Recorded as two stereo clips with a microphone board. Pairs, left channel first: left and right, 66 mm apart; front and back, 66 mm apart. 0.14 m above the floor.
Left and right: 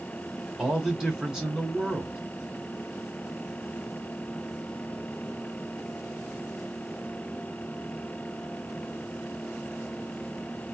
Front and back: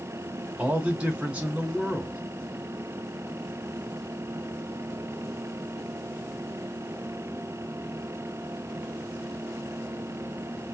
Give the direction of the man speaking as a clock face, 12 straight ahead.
5 o'clock.